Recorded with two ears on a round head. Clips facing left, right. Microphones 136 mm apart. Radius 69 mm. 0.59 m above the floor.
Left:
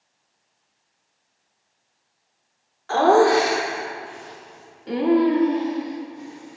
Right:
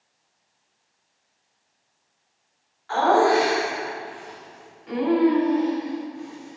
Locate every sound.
2.9 s laughter: 50° left (ahead or behind), 2 m; by 6.6 s 20° left (ahead or behind), 2 m